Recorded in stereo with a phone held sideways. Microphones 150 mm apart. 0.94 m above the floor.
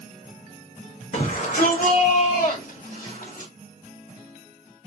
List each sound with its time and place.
1.1 s a shout: 55° left (ahead or behind), 1.8 m; by 3.5 s 65° left (ahead or behind), 3 m